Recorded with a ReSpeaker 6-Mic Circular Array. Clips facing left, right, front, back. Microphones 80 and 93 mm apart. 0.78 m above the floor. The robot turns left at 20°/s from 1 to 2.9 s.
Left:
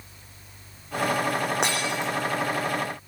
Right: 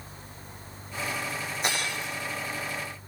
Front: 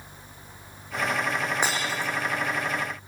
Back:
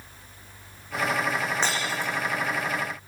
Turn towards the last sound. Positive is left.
turn(degrees=55)